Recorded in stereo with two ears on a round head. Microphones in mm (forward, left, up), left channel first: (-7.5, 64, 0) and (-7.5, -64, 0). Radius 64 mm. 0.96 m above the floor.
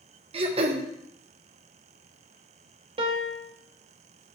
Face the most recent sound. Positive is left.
turn(degrees=-40)  # may be behind; listen again after turning